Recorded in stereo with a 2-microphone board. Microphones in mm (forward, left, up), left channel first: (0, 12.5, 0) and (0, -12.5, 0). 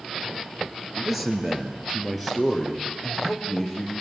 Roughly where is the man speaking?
Centre.